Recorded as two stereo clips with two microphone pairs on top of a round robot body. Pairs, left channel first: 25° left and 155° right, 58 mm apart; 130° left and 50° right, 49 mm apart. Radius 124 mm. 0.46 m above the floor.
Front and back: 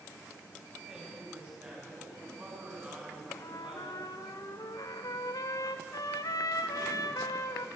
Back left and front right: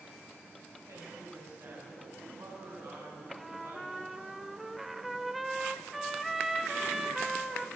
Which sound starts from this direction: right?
A woman speaking, at 0.9 s.